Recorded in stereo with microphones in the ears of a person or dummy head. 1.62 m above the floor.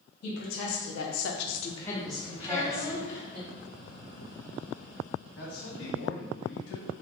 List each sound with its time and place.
0.2 s a woman speaking: 60° left (ahead or behind), 1.5 m; by 3.4 s 25° right (ahead or behind), 2 m
2.4 s a child speaking: 20° left (ahead or behind), 0.9 m
5.4 s a man speaking: 65° left (ahead or behind), 1.3 m